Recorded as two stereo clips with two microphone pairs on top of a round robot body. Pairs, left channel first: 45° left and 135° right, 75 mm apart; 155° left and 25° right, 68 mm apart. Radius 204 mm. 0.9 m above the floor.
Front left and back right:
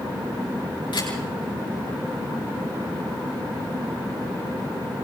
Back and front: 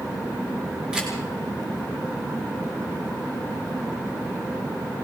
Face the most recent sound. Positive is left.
turn(degrees=50)